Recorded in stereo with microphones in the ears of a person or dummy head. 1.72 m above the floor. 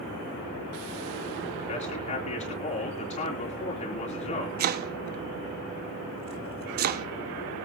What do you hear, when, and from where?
1.7 s a man speaking: 35° left (ahead or behind), 3.5 m
4.6 s chopping: 55° right (ahead or behind), 0.5 m